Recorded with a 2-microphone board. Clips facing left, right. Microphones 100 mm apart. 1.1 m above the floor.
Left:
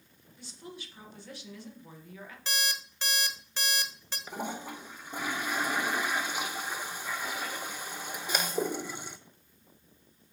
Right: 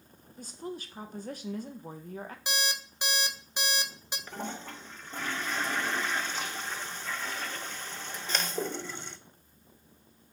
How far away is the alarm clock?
About 1.1 m.